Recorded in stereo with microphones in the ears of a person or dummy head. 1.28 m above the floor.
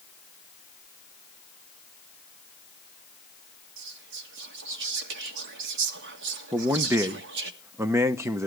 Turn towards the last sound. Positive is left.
turn(degrees=-10)  # may be behind; listen again after turning